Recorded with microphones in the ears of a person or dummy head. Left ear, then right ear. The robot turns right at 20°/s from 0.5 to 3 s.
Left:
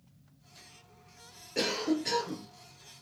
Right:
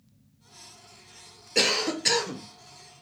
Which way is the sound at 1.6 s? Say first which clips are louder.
Right 6 dB; 40° right (ahead or behind).